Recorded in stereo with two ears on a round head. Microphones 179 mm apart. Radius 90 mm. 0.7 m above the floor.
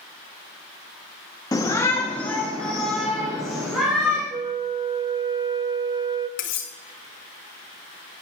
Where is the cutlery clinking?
60° left (ahead or behind), 1.8 m.